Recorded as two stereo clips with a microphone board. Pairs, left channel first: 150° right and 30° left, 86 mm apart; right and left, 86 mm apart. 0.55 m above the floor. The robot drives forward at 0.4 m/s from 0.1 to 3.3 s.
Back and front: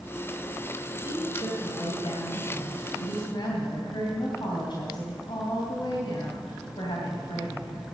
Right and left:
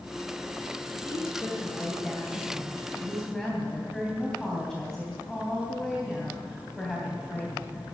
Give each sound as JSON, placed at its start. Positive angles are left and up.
{"t": 1.0, "sound": "a woman speaking", "azimuth_deg": -170, "distance_m": 2.0}